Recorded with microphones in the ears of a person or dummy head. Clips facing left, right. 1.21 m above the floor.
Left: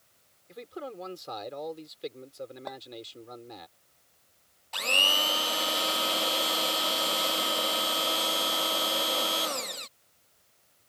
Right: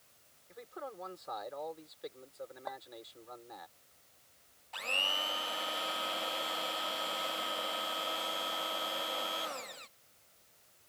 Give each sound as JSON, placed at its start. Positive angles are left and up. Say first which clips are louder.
{"t": 0.5, "sound": "a man speaking", "louder": "left 6 dB", "side_deg": 40}
{"t": 2.7, "sound": "a clink", "louder": "left 1 dB", "side_deg": 40}
{"t": 4.7, "sound": "a blender", "louder": "left 8 dB", "side_deg": 50}